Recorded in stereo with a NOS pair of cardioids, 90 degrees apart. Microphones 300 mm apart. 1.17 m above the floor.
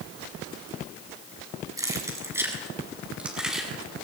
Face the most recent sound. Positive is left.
turn(degrees=0)